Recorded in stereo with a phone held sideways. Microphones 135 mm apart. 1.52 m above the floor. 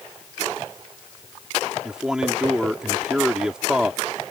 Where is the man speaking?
5° right (ahead or behind).